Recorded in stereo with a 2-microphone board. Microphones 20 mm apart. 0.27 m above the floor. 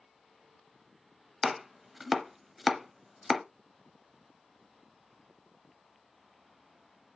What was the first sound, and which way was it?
Chopping, 5° right (ahead or behind).